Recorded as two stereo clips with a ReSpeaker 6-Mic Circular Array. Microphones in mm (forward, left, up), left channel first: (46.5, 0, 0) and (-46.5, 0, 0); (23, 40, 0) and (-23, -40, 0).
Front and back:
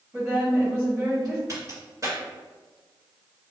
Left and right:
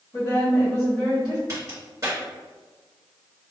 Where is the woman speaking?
100° left, 2.0 m.